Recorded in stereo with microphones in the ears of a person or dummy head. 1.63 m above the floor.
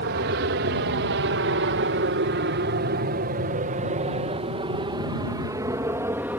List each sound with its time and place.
0.0 s an aircraft: 55° right (ahead or behind); by 6.4 s 15° right (ahead or behind)